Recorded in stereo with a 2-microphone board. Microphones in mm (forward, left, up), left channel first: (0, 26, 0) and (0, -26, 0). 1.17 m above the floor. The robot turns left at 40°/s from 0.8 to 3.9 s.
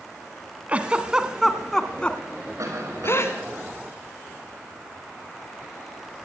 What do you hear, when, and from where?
0.7 s a giggle: 25° right (ahead or behind), 1.9 m; by 3.4 s 55° left (ahead or behind), 1.9 m
2.6 s a cough: 85° right, 6 m; by 3.6 s 125° right, 6 m